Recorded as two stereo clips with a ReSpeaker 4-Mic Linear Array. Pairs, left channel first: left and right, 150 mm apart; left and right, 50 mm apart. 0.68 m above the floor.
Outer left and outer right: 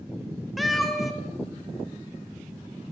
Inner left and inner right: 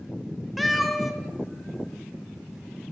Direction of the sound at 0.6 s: Centre (ahead or behind).